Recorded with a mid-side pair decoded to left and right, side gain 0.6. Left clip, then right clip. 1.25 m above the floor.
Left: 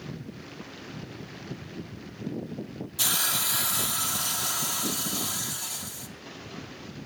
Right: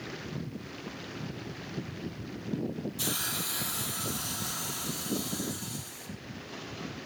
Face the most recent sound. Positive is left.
turn(degrees=45)